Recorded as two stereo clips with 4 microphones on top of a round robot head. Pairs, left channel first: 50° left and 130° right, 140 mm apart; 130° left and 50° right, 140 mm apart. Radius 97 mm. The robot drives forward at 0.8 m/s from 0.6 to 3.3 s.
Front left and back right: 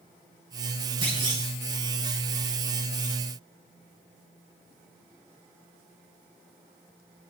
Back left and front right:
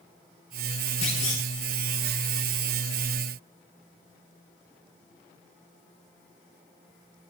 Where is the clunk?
170° left, 6 m.